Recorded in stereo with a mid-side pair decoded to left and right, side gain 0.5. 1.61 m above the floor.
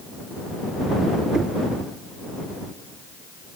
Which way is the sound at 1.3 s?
30° right.